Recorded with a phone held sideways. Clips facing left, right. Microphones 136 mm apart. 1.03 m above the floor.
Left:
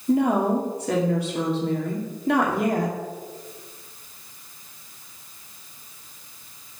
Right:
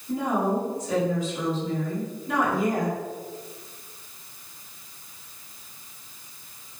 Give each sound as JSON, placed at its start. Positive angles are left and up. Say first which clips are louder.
{"t": 0.1, "sound": "a woman speaking", "louder": "left 5 dB", "side_deg": 80, "distance_m": 2.0}